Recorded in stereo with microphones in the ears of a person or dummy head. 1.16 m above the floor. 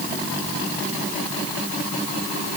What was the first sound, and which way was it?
Only background noise.